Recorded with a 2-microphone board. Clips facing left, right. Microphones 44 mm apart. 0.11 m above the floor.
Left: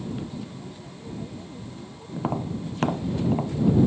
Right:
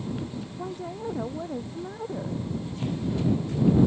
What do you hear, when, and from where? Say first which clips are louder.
0.6 s a woman speaking: right 7 dB; 60° right (ahead or behind)
2.1 s tapping: left 7 dB; 80° left